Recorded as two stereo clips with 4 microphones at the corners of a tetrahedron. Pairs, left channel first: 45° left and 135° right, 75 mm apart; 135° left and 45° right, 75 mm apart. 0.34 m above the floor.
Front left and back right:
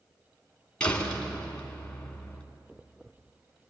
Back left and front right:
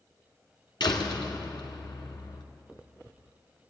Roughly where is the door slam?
Behind left.